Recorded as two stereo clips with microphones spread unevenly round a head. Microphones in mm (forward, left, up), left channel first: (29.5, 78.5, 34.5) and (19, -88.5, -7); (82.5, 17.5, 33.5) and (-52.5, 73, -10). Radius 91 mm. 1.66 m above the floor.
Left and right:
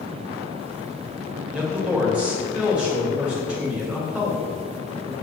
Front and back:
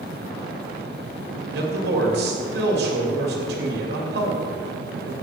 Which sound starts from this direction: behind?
A man speaking, at 1.5 s.